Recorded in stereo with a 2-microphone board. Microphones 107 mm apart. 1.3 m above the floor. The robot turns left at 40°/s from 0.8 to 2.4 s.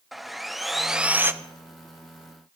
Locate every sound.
0.1 s sawing: centre (ahead or behind), 0.7 m; by 1.3 s 20° right (ahead or behind), 0.7 m